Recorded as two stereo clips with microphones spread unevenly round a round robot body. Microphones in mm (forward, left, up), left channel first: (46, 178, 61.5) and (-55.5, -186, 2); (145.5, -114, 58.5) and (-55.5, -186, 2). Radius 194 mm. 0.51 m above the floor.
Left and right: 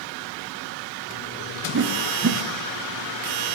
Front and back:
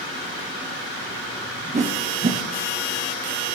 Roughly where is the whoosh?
Behind right.